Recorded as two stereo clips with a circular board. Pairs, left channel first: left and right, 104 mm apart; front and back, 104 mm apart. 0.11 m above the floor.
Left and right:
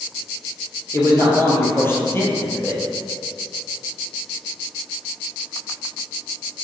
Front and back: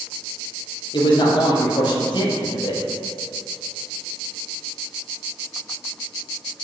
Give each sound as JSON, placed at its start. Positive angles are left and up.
{"t": 0.9, "sound": "a man speaking", "azimuth_deg": 25, "distance_m": 2.0}